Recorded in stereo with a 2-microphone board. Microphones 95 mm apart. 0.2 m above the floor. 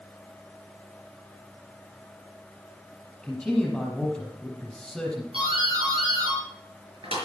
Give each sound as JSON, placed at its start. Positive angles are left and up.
{"t": 3.2, "sound": "a man speaking", "side_deg": 0, "distance_m": 5.0}
{"t": 5.3, "sound": "a doorbell", "side_deg": -70, "distance_m": 5.0}